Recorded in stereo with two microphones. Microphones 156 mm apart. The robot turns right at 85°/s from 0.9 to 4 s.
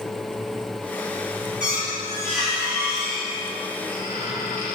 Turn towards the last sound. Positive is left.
turn(degrees=85)